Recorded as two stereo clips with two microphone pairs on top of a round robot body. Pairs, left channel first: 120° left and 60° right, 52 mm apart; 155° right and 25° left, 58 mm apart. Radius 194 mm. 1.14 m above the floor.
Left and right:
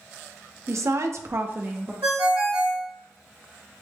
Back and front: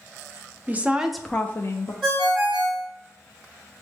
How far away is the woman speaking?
About 0.7 m.